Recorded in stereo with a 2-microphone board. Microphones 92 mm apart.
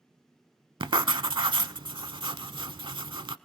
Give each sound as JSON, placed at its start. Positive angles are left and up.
{"t": 0.8, "sound": "writing", "side_deg": -65, "distance_m": 0.6}